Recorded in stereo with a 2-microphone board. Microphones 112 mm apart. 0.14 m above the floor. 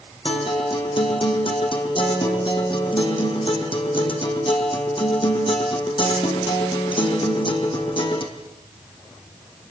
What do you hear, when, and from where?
0.2 s a guitar: 50° left (ahead or behind), 4.5 m